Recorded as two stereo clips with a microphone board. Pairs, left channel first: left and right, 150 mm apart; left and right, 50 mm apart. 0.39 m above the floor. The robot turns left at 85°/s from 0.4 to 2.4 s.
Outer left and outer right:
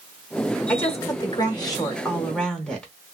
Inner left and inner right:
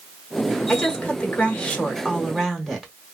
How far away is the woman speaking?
About 1.2 m.